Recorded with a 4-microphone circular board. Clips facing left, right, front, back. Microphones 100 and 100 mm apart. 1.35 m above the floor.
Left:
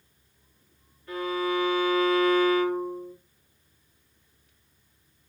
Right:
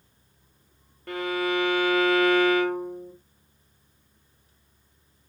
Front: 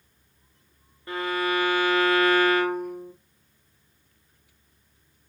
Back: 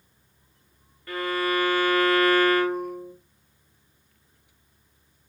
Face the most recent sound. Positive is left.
turn(degrees=-70)